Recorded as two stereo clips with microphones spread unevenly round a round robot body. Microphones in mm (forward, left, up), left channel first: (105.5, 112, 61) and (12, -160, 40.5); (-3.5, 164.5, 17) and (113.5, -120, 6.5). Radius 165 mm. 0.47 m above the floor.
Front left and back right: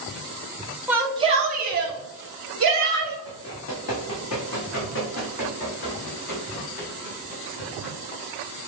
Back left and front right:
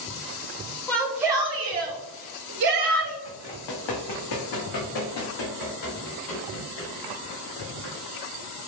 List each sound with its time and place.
0.9 s a shout: 170° right, 0.9 m; by 3.1 s 90° right, 1.6 m
3.2 s running footsteps: 120° left, 1.6 m; by 8.0 s 110° left, 4.5 m